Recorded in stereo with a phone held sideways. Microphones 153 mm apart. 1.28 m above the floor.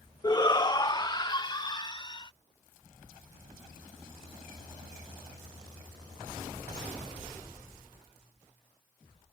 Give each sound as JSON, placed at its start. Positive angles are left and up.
{"t": 0.2, "sound": "a shout", "side_deg": 25}